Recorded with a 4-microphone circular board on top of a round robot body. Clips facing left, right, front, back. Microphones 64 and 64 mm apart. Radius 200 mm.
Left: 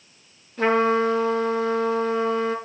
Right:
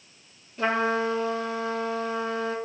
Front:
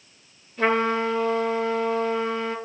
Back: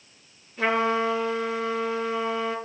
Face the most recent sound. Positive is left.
turn(degrees=100)